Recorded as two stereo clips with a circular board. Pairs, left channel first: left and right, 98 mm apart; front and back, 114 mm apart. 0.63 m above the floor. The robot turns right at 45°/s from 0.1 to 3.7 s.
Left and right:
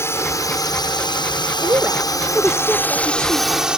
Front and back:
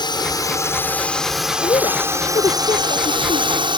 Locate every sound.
0.0 s a drone: 35° left; by 3.8 s 170° right
1.6 s a woman speaking: 40° right; by 3.7 s 50° left